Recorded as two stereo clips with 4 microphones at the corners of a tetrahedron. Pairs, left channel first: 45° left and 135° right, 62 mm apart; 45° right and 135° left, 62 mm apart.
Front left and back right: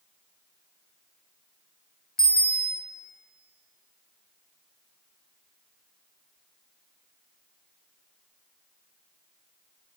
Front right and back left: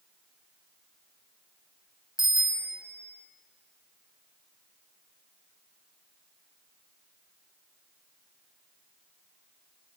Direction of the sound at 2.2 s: 35° right.